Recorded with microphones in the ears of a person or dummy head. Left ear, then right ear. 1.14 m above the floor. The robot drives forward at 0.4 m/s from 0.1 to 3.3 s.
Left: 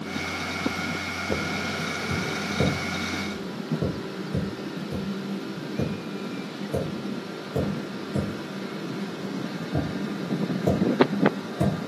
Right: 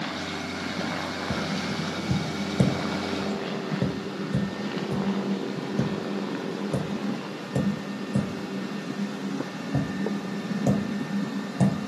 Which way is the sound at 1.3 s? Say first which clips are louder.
Left 2 dB; 65° right (ahead or behind).